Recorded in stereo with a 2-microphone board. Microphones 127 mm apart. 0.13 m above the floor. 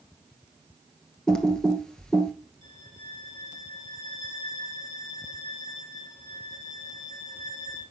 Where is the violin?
75° left (ahead or behind), 7 m.